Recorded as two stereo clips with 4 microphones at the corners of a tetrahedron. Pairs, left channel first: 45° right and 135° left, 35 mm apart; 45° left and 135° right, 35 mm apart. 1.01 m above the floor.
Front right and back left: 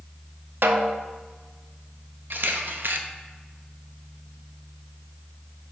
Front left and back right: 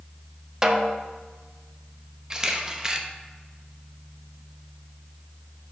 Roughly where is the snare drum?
Behind left.